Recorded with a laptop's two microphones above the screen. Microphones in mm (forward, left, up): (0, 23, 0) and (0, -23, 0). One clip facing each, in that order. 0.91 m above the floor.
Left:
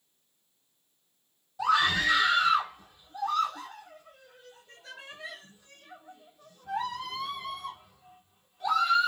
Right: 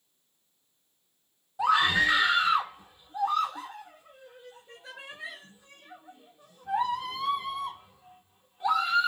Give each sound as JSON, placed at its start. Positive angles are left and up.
{"t": 1.6, "sound": "a scream", "side_deg": -20, "distance_m": 0.9}